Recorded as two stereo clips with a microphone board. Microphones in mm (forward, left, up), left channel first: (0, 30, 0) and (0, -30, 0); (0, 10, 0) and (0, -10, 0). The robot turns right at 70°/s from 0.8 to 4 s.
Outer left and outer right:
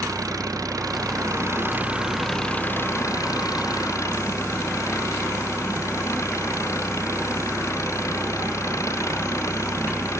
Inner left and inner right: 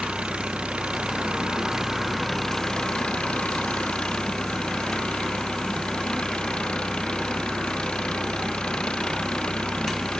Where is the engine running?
100° right; by 10.2 s 125° left.